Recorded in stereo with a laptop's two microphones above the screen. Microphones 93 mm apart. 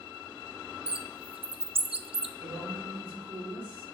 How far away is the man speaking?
About 3 m.